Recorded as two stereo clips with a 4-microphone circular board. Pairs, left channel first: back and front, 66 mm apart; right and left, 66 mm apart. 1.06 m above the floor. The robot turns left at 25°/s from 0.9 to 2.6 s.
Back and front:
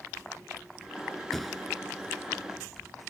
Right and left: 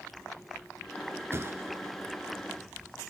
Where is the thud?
95° left, 1.2 m; by 1.9 s 80° left, 1.2 m.